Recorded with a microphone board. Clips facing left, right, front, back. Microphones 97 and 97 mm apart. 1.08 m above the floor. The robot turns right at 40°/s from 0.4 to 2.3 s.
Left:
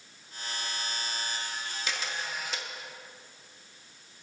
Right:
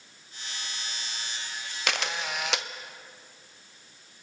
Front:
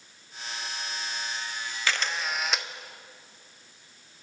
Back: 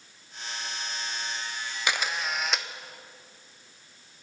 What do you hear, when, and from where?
1.9 s a camera shutter: 105° right, 0.5 m; by 2.7 s 90° right, 0.5 m